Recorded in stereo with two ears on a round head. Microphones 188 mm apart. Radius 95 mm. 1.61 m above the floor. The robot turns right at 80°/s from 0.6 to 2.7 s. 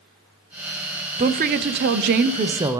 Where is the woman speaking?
140° right, 0.5 m; by 2.8 s 20° right, 0.5 m.